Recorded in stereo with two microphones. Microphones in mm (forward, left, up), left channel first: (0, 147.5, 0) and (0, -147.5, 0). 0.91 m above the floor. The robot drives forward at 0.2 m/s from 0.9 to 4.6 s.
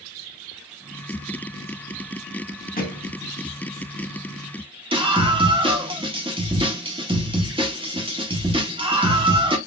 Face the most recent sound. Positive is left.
turn(degrees=-15)  # may be behind; listen again after turning